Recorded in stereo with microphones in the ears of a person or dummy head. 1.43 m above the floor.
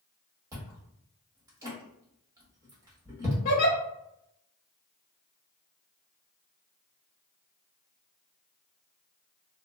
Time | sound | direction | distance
0.5 | chewing | 20° right (ahead or behind) | 1.1 m
3.5 | a giggle | 45° left (ahead or behind) | 0.8 m